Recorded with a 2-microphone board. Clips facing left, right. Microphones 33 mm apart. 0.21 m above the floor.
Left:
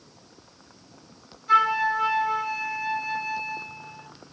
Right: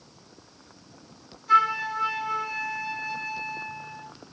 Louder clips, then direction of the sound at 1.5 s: Left 1 dB; 5° left (ahead or behind).